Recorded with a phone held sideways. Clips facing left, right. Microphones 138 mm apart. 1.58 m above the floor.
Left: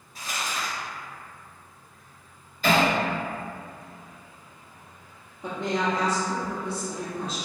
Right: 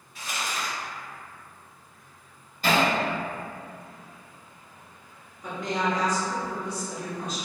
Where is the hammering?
45° right (ahead or behind), 1.7 m.